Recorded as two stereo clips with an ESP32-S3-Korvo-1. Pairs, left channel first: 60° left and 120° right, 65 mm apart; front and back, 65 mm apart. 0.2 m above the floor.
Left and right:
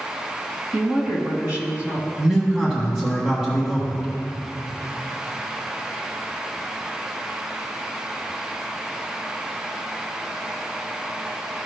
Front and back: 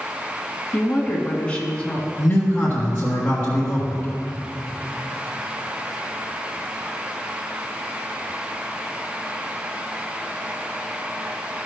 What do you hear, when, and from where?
0.7 s a woman speaking: 65° right, 2 m
2.2 s a man speaking: 50° right, 2.0 m